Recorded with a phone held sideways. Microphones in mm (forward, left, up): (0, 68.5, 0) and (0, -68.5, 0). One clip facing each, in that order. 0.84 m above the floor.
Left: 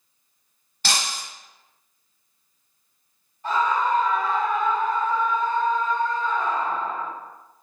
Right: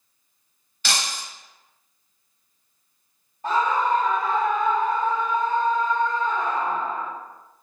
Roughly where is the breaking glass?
Left.